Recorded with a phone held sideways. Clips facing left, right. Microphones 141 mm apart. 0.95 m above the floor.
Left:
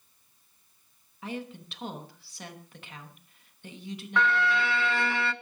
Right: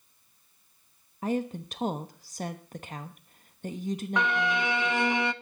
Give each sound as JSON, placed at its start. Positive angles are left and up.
{"t": 1.2, "sound": "a woman speaking", "side_deg": -40, "distance_m": 1.0}
{"t": 4.2, "sound": "a violin", "side_deg": -20, "distance_m": 0.6}